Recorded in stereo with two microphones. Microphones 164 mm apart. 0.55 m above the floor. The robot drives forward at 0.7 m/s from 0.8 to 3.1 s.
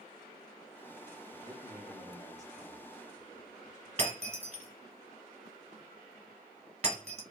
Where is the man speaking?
35° left (ahead or behind), 1.0 m; by 3.9 s 20° left (ahead or behind), 1.9 m.